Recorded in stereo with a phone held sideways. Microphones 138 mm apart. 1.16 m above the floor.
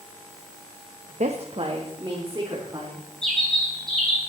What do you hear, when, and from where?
1.2 s a woman speaking: 55° right (ahead or behind), 1.0 m; by 3.0 s 30° right (ahead or behind), 3.5 m
3.2 s a bird: 5° left (ahead or behind), 5.5 m